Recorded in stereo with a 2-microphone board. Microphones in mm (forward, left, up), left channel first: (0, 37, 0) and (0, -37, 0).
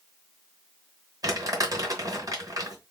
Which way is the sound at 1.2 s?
50° right (ahead or behind).